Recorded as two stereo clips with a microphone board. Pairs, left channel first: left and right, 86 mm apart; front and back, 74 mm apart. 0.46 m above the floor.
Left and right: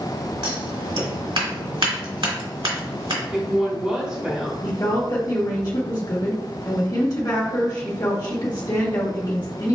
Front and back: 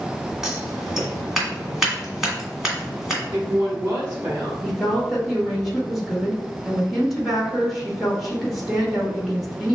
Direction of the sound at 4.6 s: 90° left.